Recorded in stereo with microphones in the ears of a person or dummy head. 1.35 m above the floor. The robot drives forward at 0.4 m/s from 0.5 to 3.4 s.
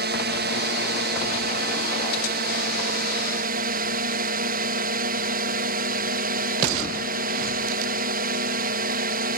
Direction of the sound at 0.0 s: 55° right (ahead or behind).